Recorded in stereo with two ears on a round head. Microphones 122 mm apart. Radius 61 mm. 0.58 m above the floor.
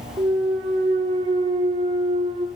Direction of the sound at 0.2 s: 35° right (ahead or behind).